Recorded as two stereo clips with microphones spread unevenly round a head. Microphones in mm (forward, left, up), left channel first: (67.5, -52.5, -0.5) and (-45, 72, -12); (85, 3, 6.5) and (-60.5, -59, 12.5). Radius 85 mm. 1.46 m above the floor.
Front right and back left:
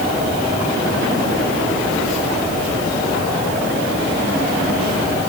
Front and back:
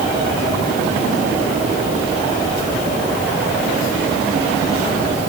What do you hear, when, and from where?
Only background noise.